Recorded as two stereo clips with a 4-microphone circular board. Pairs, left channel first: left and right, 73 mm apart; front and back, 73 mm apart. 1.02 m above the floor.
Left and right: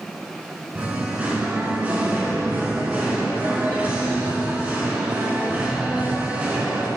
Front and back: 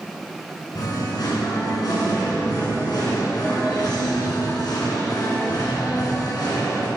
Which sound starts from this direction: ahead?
Singing, at 0.8 s.